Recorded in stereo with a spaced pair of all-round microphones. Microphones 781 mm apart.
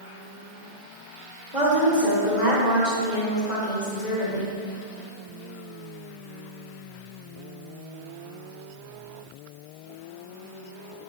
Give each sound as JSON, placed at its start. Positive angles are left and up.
{"t": 1.5, "sound": "a woman speaking", "side_deg": 65, "distance_m": 1.8}